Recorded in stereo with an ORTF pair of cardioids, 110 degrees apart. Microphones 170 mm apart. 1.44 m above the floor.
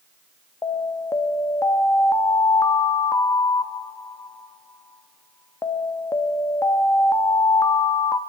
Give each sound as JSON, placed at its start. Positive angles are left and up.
{"t": 0.6, "sound": "an alarm", "azimuth_deg": 20, "distance_m": 1.6}